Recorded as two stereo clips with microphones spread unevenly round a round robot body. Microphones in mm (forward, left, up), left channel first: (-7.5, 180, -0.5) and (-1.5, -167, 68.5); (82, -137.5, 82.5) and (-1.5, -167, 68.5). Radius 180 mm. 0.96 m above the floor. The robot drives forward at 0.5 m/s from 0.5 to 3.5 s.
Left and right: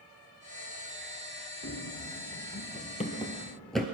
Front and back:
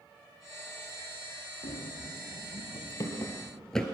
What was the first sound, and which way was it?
Running footsteps, 25° left.